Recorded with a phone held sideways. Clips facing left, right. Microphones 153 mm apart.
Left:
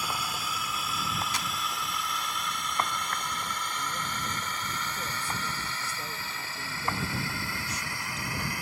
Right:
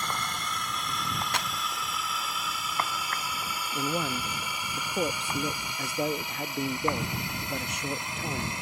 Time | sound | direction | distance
0.0 | a drone | 5° left (ahead or behind) | ?
1.3 | a clap | 65° right (ahead or behind) | ?
3.7 | a man speaking | 65° right (ahead or behind) | ?